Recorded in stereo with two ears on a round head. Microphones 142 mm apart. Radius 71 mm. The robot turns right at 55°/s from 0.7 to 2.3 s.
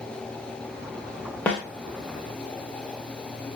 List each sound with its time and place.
1.5 s a snare drum: 10° left (ahead or behind), 1.2 m; by 1.6 s centre (ahead or behind), 1.2 m